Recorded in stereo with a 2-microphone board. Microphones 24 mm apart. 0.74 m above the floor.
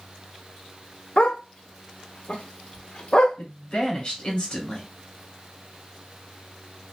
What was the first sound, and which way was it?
A dog barking, 55° left (ahead or behind).